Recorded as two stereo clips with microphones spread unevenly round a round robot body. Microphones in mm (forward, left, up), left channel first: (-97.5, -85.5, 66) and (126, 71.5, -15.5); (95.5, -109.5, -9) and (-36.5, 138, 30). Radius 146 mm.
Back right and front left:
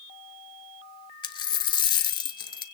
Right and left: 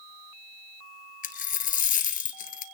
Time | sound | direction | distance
1.2 | a dropped coin | 120° right | 1.0 m